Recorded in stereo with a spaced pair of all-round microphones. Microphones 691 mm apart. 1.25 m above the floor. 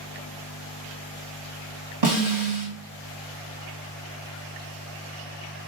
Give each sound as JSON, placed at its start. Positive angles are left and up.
{"t": 2.0, "sound": "a snare drum", "side_deg": -85, "distance_m": 1.9}